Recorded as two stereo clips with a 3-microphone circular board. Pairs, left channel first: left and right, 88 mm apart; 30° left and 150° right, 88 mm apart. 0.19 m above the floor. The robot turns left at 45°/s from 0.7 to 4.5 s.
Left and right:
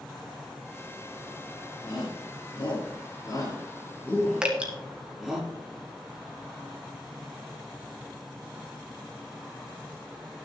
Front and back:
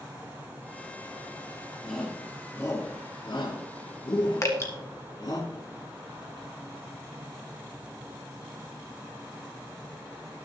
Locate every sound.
1.8 s a shout: 115° left, 4 m; by 5.4 s 5° right, 4 m
4.4 s dripping: 15° right, 1.7 m; by 4.7 s 20° right, 1.7 m